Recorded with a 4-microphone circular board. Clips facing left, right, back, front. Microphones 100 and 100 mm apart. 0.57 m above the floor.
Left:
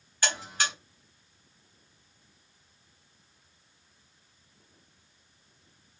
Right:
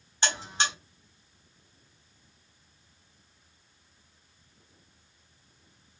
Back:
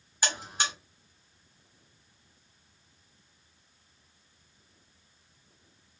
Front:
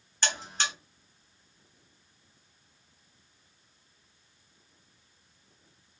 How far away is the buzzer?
About 1.1 m.